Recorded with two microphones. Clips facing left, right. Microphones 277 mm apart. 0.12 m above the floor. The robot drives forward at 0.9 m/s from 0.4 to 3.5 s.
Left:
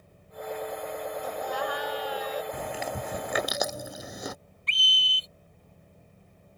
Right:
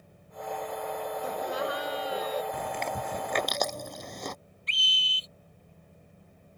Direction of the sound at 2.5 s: 5° left (ahead or behind).